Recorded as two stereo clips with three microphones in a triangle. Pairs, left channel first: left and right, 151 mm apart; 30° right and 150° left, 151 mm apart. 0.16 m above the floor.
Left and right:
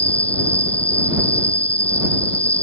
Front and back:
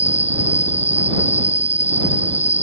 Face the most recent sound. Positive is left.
turn(degrees=10)